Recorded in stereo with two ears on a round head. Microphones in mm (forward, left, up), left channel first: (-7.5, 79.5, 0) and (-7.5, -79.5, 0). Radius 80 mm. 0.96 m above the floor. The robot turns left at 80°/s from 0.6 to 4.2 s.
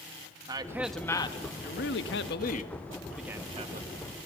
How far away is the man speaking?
About 1.3 m.